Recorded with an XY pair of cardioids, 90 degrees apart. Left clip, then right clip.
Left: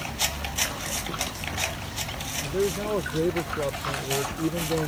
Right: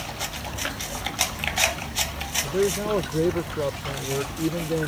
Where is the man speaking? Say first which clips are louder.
Right 2 dB; 20° right; by 4.9 s 5° right.